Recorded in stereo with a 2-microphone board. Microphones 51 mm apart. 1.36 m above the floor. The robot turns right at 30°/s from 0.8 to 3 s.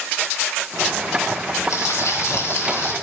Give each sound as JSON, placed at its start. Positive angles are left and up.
{"t": 1.7, "sound": "frying", "azimuth_deg": 85, "distance_m": 1.7}